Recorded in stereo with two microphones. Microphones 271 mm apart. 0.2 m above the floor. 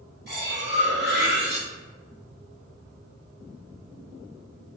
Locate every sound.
0.3 s cutlery clinking: 40° right (ahead or behind), 2.0 m